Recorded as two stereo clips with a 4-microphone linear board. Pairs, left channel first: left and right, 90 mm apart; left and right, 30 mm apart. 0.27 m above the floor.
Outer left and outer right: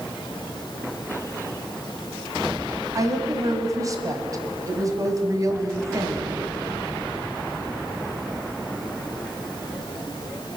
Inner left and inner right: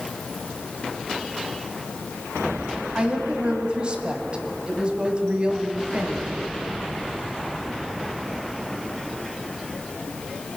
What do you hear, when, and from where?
3.0 s a woman speaking: 35° right (ahead or behind), 2.0 m